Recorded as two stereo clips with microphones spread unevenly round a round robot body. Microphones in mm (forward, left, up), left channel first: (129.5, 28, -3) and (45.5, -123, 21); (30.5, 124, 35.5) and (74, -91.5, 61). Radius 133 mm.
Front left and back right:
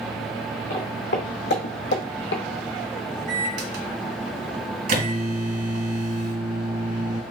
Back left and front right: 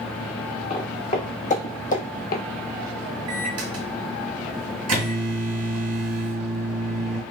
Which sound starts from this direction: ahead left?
Footsteps, at 0.7 s.